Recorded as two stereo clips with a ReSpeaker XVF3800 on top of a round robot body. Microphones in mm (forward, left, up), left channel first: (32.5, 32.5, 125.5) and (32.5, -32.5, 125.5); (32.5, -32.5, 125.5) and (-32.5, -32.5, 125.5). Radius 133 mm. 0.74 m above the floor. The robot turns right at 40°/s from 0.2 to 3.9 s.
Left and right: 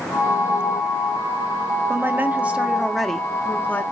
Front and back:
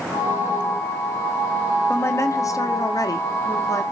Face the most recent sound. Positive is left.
turn(degrees=35)